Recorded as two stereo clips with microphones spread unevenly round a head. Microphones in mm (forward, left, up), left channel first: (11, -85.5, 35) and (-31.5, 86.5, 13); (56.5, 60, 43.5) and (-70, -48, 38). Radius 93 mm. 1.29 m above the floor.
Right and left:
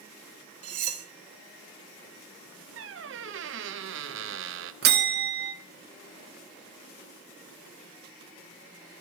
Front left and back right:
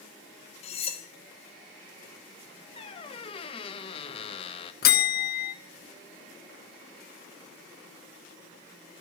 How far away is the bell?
About 1.0 m.